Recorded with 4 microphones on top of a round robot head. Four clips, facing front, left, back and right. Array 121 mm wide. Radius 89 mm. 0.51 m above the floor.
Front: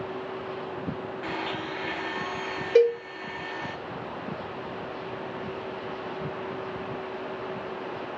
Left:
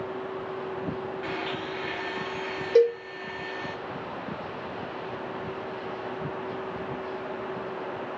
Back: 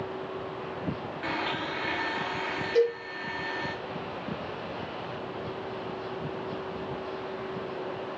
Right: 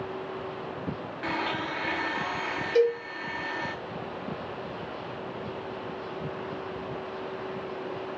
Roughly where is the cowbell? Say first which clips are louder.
Left 3 dB, front 5 dB; ahead left.